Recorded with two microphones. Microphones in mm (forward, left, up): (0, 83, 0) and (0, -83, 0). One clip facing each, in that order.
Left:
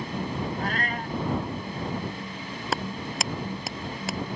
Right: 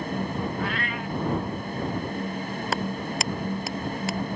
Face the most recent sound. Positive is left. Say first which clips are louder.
# right 1 dB
turn(degrees=0)  # may be behind; listen again after turning